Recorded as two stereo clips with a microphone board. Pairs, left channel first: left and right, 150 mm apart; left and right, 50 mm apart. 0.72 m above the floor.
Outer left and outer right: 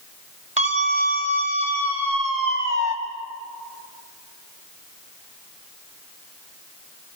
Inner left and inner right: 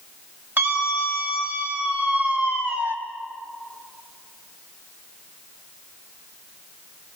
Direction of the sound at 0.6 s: 50° right (ahead or behind).